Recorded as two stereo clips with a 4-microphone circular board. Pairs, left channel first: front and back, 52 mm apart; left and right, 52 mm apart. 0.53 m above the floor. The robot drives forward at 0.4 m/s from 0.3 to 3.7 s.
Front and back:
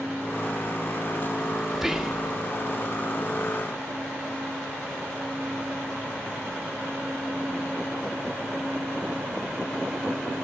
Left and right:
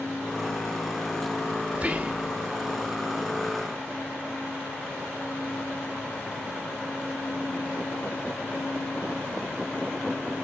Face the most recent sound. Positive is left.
turn(degrees=-145)